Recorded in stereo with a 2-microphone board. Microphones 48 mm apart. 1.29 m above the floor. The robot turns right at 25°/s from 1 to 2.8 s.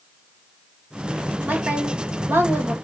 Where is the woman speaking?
145° right, 1.9 m; by 2.7 s 115° right, 1.9 m.